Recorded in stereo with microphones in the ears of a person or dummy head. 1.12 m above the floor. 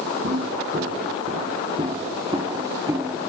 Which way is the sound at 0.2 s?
45° right (ahead or behind).